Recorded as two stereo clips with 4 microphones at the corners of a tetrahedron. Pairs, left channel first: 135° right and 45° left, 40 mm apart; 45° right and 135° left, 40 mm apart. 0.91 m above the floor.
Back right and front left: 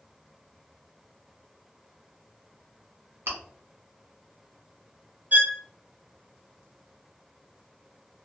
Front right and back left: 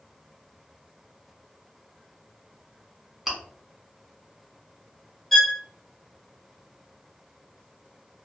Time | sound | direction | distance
3.3 | chewing | 50° left | 1.5 m
5.3 | a violin | 40° left | 0.5 m